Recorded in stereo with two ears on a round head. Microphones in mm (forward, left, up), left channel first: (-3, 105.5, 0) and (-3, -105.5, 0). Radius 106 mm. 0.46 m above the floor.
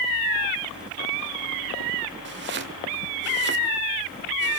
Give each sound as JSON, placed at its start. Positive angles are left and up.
{"t": 2.2, "sound": "chopping", "side_deg": -50, "distance_m": 2.0}